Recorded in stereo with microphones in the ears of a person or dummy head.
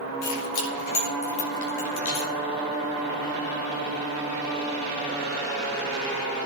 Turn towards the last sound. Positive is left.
turn(degrees=70)  # may be behind; listen again after turning